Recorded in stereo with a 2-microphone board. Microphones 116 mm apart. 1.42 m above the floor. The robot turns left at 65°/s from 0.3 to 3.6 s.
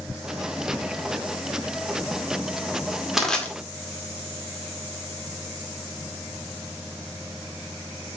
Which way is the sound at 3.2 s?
5° right (ahead or behind).